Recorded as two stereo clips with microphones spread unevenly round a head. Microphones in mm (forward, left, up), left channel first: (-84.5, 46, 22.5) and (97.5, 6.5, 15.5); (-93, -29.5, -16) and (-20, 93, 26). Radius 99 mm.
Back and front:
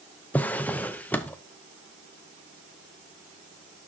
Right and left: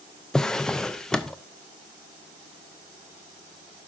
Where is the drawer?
110° left, 0.6 m.